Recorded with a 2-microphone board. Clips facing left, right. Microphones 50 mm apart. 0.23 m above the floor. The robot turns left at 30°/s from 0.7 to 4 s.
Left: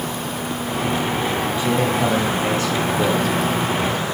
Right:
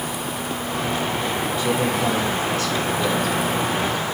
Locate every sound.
1.6 s a man speaking: 20° left (ahead or behind), 1.1 m; by 3.4 s 30° left (ahead or behind), 1.1 m